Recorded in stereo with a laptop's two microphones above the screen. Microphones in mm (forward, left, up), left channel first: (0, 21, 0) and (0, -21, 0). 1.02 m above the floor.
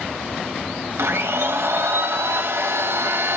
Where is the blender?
75° right (ahead or behind), 0.6 m.